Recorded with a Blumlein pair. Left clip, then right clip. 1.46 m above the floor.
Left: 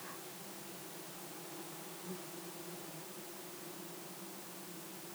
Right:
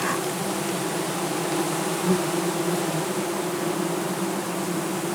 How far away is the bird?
No bird in this recording.